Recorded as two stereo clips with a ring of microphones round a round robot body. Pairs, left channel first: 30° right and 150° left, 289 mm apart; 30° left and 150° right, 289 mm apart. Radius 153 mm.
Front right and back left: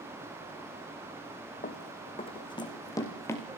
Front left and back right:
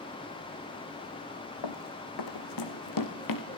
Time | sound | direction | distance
1.6 | running footsteps | 35° left | 3 m